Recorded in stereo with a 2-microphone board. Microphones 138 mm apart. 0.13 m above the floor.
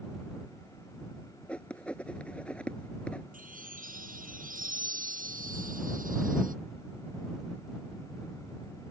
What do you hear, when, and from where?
1.5 s writing: 10° left (ahead or behind)
3.3 s a chime: 85° right